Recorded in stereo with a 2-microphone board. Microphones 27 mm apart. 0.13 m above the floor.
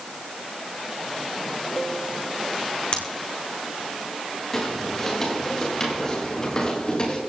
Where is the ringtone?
No ringtone in this recording.